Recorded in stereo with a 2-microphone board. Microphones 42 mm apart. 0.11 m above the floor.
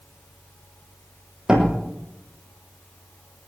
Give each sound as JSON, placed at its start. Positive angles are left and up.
{"t": 1.5, "sound": "a door slam", "side_deg": -20, "distance_m": 3.5}